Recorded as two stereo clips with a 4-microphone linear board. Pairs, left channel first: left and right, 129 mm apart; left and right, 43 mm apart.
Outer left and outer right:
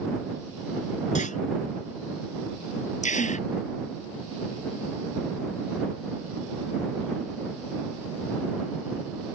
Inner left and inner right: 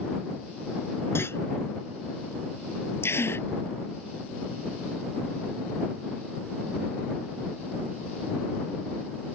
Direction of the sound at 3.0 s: 70° left (ahead or behind).